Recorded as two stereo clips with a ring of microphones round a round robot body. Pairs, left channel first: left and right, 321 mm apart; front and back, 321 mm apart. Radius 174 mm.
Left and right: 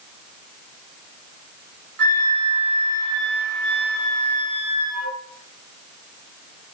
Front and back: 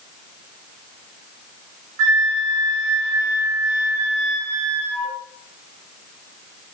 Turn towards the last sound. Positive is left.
turn(degrees=-130)